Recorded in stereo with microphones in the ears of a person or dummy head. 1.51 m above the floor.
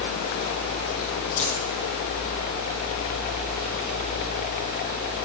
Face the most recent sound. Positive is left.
turn(degrees=40)  # may be behind; listen again after turning